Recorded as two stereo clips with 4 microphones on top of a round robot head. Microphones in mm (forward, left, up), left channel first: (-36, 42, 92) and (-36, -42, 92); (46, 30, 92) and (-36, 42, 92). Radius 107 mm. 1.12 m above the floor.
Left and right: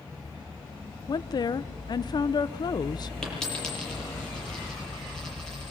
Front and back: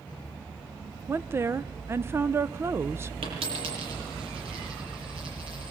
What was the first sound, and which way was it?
A woman speaking, 115° left.